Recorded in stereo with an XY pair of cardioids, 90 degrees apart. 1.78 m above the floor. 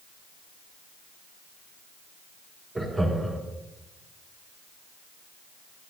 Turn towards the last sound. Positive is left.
turn(degrees=-25)